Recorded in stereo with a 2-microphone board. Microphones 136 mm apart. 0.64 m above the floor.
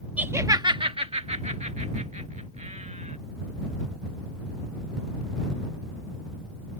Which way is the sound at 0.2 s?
10° right (ahead or behind).